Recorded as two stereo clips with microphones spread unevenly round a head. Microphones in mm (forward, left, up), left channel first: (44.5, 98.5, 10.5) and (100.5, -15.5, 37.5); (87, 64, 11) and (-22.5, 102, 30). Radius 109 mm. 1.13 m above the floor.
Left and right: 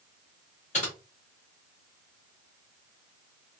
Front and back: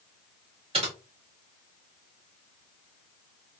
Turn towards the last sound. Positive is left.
turn(degrees=175)